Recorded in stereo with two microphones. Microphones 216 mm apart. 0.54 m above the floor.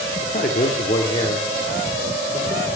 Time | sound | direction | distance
0.2 | a man speaking | 45° left (ahead or behind) | 1.4 m